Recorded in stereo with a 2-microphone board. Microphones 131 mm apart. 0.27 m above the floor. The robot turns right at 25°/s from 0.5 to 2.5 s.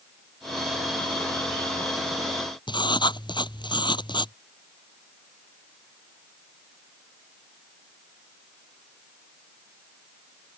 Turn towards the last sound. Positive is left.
turn(degrees=40)  # may be behind; listen again after turning